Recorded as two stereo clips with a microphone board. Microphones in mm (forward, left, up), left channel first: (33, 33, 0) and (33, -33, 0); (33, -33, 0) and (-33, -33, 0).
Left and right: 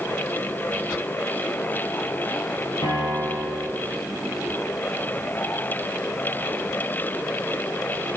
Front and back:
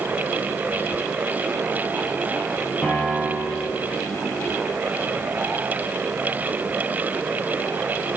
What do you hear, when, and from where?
2.8 s a piano: 75° left, 4 m